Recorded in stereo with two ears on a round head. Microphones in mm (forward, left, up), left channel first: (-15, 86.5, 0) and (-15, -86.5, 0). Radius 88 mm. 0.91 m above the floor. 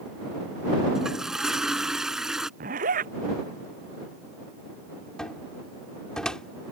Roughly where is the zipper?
Right.